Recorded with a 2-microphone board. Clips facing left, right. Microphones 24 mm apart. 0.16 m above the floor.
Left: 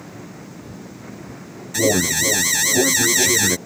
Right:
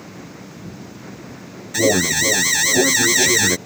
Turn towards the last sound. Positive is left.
turn(degrees=-10)  # may be behind; listen again after turning